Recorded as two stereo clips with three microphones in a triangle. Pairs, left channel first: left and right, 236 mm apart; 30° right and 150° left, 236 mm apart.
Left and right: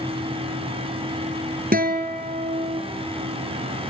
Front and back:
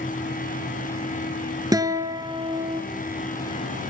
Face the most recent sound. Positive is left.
turn(degrees=-135)